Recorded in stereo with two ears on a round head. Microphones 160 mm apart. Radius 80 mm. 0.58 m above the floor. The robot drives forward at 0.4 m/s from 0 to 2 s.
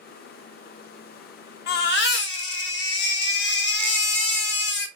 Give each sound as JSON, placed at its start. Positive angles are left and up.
{"t": 1.7, "sound": "a baby crying", "side_deg": 55, "distance_m": 0.8}